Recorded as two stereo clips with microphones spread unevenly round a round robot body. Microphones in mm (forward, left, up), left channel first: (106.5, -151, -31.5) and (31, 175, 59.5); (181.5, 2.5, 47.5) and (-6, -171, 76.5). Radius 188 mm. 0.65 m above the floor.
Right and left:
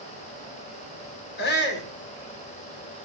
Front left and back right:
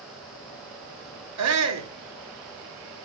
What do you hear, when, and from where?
1.4 s a shout: 130° right, 1.6 m